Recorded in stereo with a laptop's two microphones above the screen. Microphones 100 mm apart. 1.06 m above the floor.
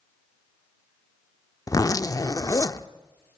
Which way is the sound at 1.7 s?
35° left (ahead or behind).